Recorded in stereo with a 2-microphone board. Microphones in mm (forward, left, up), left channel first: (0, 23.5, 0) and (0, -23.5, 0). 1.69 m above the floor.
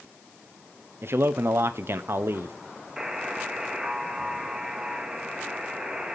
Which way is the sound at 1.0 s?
55° right (ahead or behind).